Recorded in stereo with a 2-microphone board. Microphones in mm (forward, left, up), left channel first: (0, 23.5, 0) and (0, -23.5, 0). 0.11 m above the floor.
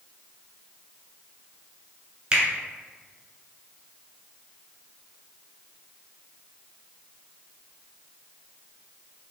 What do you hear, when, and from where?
2.3 s a finger snap: 20° right (ahead or behind), 0.9 m